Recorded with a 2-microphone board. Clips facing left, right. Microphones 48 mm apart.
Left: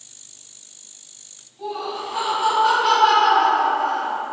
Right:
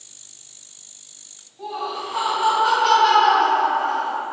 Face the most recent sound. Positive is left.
turn(degrees=30)  # may be behind; listen again after turning